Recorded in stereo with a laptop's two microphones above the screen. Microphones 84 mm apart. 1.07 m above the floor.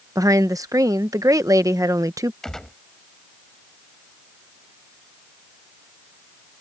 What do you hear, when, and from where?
0.1 s a woman speaking: 40° right (ahead or behind)
2.4 s a gunshot: 5° left (ahead or behind)